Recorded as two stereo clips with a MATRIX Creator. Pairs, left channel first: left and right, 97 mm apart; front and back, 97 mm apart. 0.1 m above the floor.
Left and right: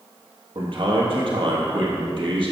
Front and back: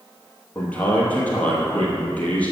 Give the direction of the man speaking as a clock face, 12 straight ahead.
2 o'clock.